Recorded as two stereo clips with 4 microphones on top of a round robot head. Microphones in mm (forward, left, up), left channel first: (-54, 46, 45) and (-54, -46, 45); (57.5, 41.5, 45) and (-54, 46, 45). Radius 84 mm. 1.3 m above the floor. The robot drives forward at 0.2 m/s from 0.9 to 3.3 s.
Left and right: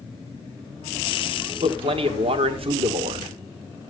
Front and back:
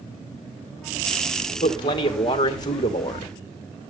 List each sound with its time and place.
1.6 s a man speaking: 55° right, 1.8 m; by 3.3 s 65° right, 1.7 m